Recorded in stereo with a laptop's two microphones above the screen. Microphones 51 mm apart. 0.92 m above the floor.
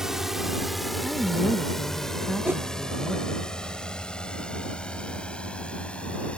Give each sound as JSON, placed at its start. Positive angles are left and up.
{"t": 0.0, "sound": "a drone", "side_deg": -10}
{"t": 1.0, "sound": "a woman speaking", "side_deg": 0}
{"t": 2.5, "sound": "a whoosh", "side_deg": -45}